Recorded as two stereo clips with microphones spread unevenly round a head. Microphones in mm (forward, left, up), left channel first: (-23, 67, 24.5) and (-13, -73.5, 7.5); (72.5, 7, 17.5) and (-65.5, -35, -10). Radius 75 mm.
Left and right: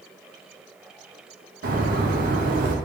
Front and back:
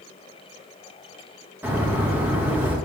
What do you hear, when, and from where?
1.6 s a bird: 90° right, 0.8 m